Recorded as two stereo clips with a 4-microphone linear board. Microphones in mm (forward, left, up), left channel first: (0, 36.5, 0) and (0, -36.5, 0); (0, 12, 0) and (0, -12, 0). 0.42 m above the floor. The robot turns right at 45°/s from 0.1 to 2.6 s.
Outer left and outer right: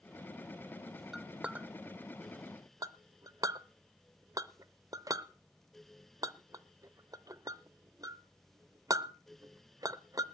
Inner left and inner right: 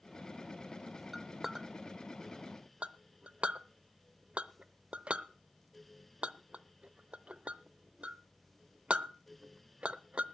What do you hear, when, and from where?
1.1 s a clink: 5° right (ahead or behind), 0.6 m; by 10.2 s 50° right (ahead or behind), 0.6 m